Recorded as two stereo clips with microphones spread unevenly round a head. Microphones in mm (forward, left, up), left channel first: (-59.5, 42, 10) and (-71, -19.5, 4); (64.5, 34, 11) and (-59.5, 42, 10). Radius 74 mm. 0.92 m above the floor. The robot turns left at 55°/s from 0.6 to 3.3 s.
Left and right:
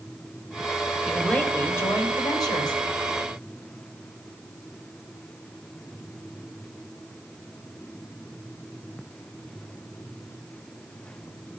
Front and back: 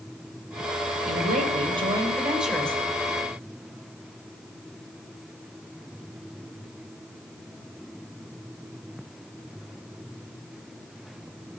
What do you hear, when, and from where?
1.1 s a woman speaking: 170° left, 3 m; by 2.8 s 70° left, 3 m